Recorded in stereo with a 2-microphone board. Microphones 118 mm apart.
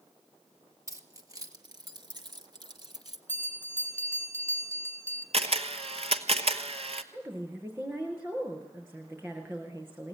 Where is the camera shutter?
60° right (ahead or behind), 1.2 m.